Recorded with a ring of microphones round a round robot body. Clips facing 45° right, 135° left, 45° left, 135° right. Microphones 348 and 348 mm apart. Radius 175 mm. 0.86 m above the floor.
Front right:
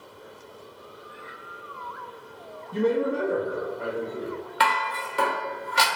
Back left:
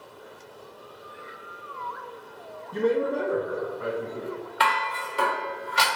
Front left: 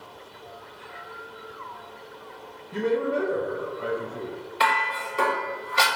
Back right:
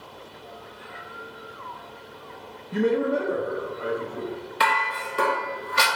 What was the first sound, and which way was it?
A man speaking, 125° right.